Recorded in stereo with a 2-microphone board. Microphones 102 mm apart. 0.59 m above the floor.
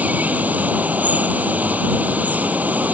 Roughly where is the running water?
Centre.